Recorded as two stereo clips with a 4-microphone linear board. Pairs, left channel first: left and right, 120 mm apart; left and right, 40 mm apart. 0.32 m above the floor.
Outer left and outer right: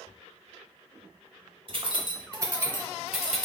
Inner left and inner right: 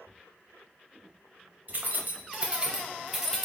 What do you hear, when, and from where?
1.7 s keys jangling: 50° right (ahead or behind), 0.8 m; by 3.5 s 5° left (ahead or behind), 0.9 m